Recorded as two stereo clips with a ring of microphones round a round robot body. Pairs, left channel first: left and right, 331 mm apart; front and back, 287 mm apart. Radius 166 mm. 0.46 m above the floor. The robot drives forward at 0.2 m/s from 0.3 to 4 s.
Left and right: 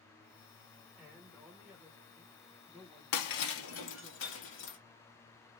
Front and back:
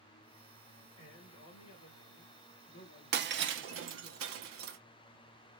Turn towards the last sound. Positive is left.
turn(degrees=140)